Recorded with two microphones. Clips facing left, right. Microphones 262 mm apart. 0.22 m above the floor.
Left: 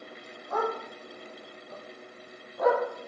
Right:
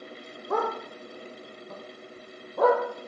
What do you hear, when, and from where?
0.5 s a dog barking: 60° right (ahead or behind), 3.5 m; by 2.8 s 80° right, 3.5 m